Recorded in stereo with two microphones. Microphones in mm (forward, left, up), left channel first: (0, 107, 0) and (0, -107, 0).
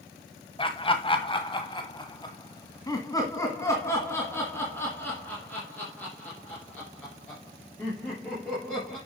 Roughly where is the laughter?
Left.